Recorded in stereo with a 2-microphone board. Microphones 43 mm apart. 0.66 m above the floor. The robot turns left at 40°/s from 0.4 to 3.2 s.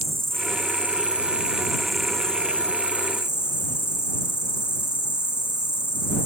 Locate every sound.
0.0 s an insect: 120° right; by 6.3 s 130° left